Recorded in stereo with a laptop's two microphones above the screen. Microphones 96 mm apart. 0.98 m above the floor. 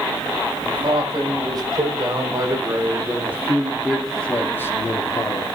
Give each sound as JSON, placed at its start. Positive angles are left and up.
{"t": 0.6, "sound": "a man speaking", "side_deg": -50, "distance_m": 6.0}